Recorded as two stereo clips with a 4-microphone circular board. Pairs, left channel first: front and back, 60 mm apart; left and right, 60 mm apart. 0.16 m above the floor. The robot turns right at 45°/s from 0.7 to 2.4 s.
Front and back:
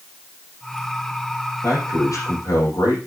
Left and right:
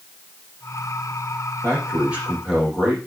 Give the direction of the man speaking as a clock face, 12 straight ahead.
1 o'clock.